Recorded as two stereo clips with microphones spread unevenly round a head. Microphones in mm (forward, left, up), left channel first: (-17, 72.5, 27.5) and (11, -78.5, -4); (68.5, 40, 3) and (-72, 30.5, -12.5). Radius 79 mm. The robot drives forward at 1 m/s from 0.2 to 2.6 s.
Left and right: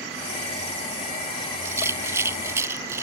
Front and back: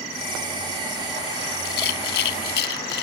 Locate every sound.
1.6 s a rattle: 5° right